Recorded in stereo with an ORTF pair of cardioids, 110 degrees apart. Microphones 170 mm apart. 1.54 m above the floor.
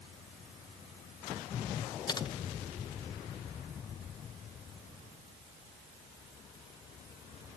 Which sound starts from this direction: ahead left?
Typing on a keyboard, at 2.1 s.